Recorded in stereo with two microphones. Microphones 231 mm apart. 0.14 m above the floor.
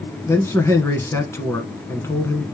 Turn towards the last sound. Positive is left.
turn(degrees=10)  # may be behind; listen again after turning